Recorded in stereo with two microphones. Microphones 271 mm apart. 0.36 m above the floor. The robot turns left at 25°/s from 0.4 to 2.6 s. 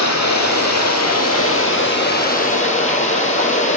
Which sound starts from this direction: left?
Running water, at 0.0 s.